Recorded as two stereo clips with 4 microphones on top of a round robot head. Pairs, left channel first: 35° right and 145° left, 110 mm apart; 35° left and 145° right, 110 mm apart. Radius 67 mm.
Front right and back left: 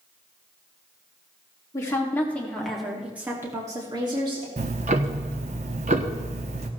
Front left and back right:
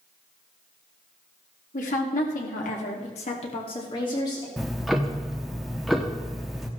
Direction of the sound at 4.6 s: 130° left.